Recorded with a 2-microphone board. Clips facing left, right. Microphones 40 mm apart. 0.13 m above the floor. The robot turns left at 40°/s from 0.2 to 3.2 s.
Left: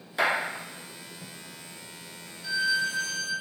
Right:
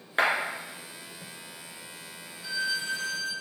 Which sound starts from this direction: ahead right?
A violin, at 2.4 s.